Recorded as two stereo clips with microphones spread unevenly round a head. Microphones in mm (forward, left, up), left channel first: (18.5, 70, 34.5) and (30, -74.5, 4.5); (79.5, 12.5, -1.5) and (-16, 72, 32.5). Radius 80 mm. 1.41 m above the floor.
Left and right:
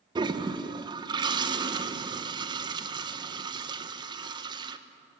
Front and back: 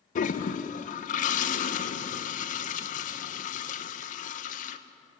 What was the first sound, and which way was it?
A toilet flushing, 25° right.